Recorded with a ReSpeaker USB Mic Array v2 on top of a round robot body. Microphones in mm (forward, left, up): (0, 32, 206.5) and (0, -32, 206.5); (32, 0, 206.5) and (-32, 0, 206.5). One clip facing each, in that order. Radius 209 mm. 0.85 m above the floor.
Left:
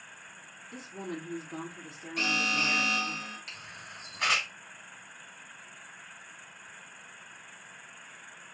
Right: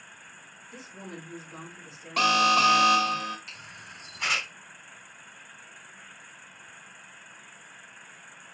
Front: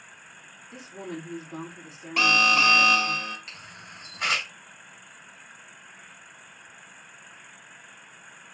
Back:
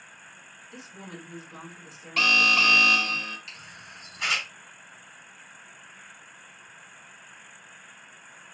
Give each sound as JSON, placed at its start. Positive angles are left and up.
{"t": 0.7, "sound": "a woman speaking", "azimuth_deg": 50, "distance_m": 2.5}
{"t": 2.2, "sound": "an alarm", "azimuth_deg": -75, "distance_m": 1.0}
{"t": 3.5, "sound": "a camera shutter", "azimuth_deg": 50, "distance_m": 2.5}